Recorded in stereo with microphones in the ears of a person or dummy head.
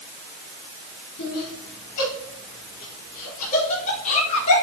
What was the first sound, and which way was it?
Laughter, 60° left (ahead or behind).